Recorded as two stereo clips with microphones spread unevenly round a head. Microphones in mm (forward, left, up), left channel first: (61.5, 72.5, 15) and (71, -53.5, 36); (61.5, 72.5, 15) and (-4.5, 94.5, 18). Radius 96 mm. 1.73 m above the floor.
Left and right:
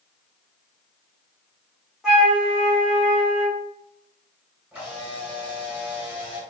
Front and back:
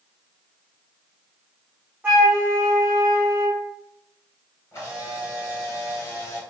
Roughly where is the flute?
Behind right.